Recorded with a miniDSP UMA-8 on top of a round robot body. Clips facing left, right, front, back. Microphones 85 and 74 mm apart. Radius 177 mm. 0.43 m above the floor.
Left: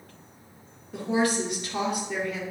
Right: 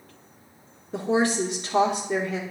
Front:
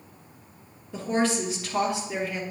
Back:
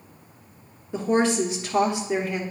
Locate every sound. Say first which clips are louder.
0.9 s a woman speaking: right 2 dB, back 4 dB; 120° right, 1.2 m